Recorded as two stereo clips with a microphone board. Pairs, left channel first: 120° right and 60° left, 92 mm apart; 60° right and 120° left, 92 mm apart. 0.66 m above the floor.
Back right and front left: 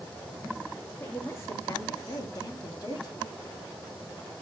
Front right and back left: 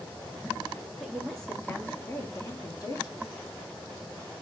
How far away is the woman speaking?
About 1.0 m.